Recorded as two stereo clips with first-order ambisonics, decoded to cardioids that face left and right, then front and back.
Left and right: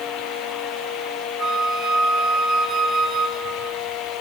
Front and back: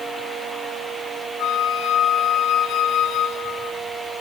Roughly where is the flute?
Ahead right.